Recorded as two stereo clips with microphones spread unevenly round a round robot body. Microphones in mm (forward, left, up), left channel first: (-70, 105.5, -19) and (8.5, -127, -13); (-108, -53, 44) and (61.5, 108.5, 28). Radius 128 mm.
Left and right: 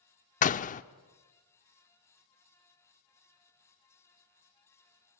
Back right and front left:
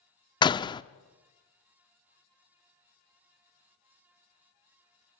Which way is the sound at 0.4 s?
155° left.